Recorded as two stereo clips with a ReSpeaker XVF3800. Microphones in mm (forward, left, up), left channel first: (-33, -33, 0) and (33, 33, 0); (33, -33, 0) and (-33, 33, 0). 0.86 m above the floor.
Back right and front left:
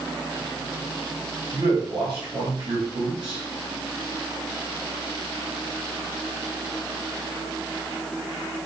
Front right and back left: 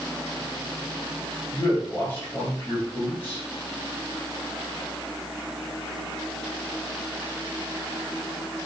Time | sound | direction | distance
1.5 | a man speaking | 25° left | 1.9 m